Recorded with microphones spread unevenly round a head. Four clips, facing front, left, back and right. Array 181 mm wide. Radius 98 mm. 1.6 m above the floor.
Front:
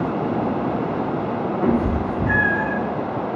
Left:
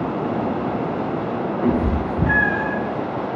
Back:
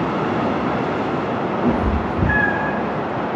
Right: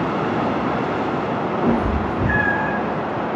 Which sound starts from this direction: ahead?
A cat meowing, at 1.6 s.